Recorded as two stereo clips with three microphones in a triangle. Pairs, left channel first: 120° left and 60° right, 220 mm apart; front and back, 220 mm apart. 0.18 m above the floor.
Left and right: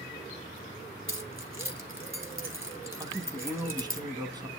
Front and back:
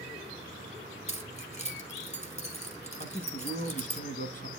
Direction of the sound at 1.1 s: 55° right.